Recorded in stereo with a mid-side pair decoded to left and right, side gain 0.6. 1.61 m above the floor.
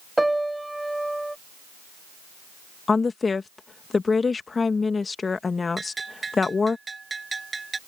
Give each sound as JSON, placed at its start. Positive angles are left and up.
{"t": 0.2, "sound": "a piano", "azimuth_deg": -5}
{"t": 2.9, "sound": "a woman speaking", "azimuth_deg": 25}
{"t": 5.8, "sound": "a bell", "azimuth_deg": -20}